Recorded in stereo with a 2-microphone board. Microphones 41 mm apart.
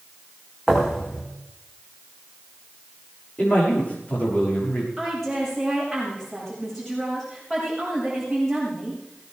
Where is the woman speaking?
5° left (ahead or behind), 7.5 m.